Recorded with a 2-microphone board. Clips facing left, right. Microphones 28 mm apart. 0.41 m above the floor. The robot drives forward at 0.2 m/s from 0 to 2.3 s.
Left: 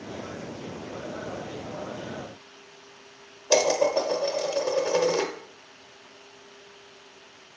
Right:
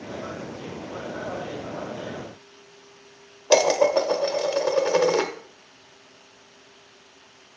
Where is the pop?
I don't hear a pop.